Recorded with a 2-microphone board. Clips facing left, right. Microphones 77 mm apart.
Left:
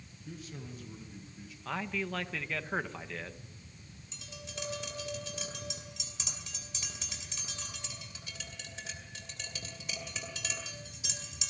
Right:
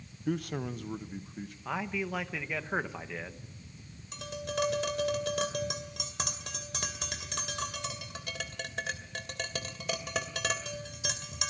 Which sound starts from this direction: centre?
A man speaking, at 1.6 s.